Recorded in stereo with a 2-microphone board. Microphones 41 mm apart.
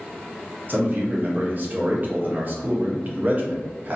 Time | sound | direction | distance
0.7 | a man speaking | 40° right (ahead or behind) | 0.7 m